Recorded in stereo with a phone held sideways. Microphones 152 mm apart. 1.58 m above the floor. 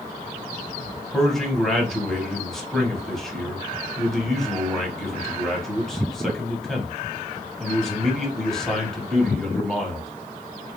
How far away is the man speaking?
About 0.8 m.